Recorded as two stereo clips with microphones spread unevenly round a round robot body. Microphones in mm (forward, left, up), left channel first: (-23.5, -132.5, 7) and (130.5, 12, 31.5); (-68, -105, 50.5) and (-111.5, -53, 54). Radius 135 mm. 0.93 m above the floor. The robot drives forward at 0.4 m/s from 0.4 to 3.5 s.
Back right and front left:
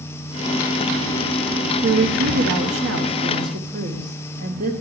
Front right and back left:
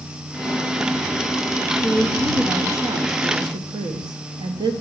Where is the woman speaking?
50° left, 0.8 m; by 4.7 s 105° left, 0.7 m.